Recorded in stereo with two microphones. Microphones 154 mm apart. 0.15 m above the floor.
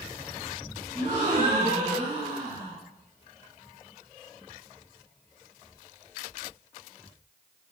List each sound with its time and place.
0.9 s a gasp: 55° right (ahead or behind), 1.6 m